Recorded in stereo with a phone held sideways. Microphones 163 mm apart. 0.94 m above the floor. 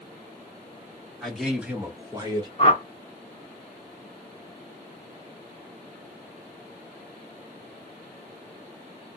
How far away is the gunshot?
No gunshot in this recording.